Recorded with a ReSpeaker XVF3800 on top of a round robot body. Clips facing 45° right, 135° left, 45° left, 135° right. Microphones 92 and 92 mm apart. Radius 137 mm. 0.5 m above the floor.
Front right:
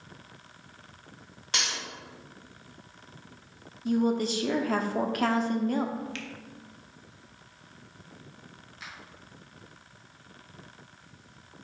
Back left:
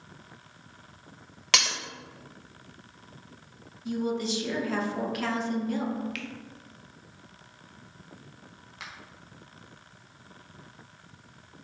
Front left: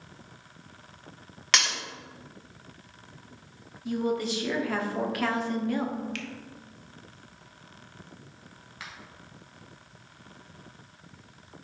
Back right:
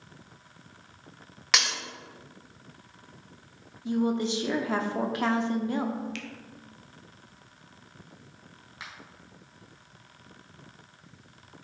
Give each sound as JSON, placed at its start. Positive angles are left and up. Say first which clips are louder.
{"t": 1.5, "sound": "breaking glass", "louder": "back left 5 dB, front left 1 dB", "azimuth_deg": 140, "distance_m": 0.9}
{"t": 3.9, "sound": "a woman speaking", "louder": "front right 4 dB, back right 2 dB", "azimuth_deg": -75, "distance_m": 1.2}
{"t": 6.2, "sound": "a finger snap", "louder": "back left 2 dB, front left 2 dB", "azimuth_deg": 10, "distance_m": 1.2}
{"t": 8.8, "sound": "a finger snap", "louder": "back left 1 dB, even", "azimuth_deg": 155, "distance_m": 2.0}